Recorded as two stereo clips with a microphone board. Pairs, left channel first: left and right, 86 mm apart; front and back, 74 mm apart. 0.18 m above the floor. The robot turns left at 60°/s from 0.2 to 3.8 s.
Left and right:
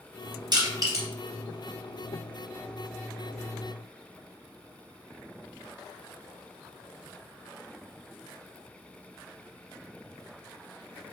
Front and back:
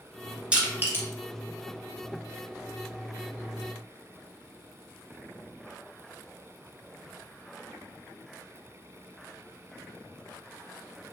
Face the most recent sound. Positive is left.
turn(degrees=60)